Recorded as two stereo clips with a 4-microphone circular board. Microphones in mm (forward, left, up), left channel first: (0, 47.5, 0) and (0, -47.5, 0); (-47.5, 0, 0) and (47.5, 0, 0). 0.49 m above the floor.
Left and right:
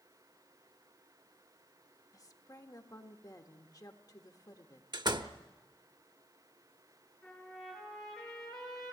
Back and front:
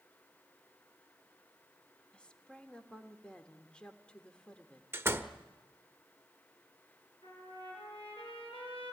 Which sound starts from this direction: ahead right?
A door slam, at 4.9 s.